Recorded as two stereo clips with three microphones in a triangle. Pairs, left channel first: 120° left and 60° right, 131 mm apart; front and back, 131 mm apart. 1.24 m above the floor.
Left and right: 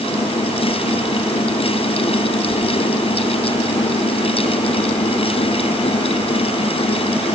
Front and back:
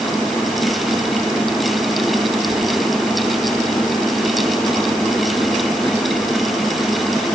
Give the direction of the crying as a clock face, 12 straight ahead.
No crying in this recording.